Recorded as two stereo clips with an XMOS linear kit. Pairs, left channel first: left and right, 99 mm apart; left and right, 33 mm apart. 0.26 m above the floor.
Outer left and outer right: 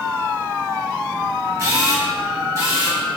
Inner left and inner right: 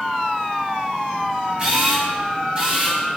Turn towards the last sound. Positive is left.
turn(degrees=-35)  # may be behind; listen again after turning